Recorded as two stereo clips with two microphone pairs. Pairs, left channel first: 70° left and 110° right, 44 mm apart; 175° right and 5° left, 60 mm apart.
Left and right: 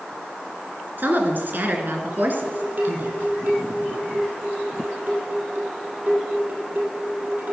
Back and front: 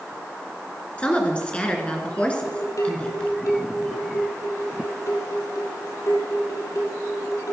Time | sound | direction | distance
1.0 | a woman speaking | 110° right | 2 m
2.3 | dishes clattering | 150° right | 3 m